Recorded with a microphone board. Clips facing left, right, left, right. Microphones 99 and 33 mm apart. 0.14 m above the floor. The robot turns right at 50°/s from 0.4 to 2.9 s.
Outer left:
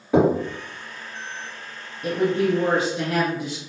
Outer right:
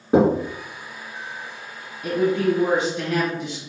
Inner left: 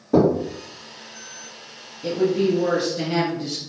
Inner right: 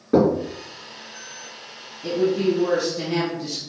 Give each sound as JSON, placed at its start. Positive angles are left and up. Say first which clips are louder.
{"t": 0.1, "sound": "knocking", "louder": "outer right 1 dB, even", "side_deg": -30, "distance_m": 2.0}
{"t": 2.0, "sound": "a woman speaking", "louder": "outer right 1 dB, even", "azimuth_deg": 85, "distance_m": 2.0}